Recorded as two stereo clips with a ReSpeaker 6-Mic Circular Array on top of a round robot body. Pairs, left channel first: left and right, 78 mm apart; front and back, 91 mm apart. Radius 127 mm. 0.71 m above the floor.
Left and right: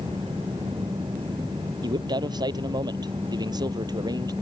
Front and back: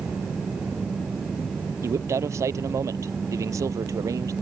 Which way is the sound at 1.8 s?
120° right.